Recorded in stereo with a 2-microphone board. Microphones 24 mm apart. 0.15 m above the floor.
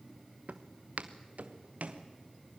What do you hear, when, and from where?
0.5 s footsteps: 85° right, 1.2 m; by 2.0 s 75° right (ahead or behind), 2 m